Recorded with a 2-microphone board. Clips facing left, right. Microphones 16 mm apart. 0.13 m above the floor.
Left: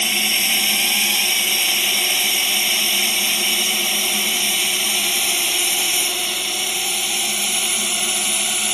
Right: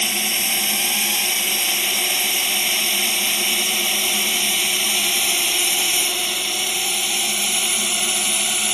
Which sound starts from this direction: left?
A drone, at 0.0 s.